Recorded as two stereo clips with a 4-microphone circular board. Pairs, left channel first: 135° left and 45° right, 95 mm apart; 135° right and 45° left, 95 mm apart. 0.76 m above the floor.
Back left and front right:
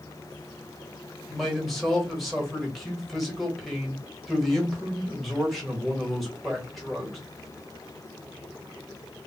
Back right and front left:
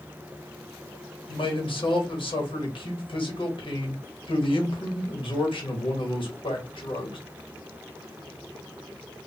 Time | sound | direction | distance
1.3 | a man speaking | 135° right | 1.2 m